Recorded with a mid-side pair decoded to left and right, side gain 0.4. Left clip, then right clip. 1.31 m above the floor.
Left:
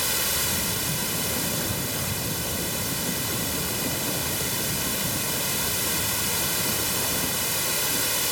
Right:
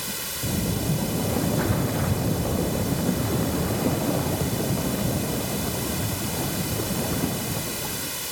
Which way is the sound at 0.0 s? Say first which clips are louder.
Left 5 dB; 50° left.